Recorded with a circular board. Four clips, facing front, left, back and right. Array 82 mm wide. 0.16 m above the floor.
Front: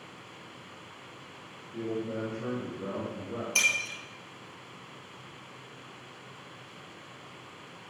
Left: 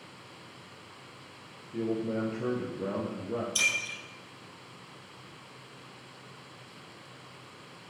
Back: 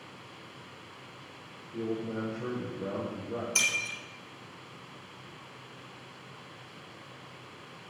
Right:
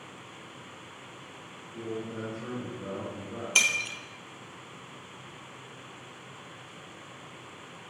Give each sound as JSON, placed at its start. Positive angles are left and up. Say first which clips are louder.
{"t": 1.7, "sound": "a man speaking", "louder": "left 6 dB, even", "azimuth_deg": 90, "distance_m": 3.5}
{"t": 3.5, "sound": "breaking glass", "louder": "right 3 dB, front 2 dB", "azimuth_deg": -85, "distance_m": 2.0}